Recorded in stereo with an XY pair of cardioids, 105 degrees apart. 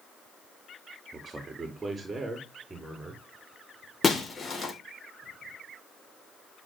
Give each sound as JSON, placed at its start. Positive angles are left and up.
{"t": 1.1, "sound": "a man speaking", "azimuth_deg": -20, "distance_m": 3.0}
{"t": 4.0, "sound": "breaking glass", "azimuth_deg": 30, "distance_m": 4.0}